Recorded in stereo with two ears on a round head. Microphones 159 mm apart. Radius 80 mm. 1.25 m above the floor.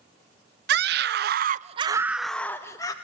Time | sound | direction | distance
0.7 | a scream | 60° right (ahead or behind) | 0.8 m